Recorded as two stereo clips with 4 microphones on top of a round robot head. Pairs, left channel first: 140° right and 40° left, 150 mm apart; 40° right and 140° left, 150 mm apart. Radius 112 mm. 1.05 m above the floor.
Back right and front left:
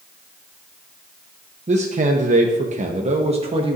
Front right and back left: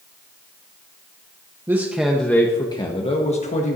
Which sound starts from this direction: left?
A man speaking, at 1.7 s.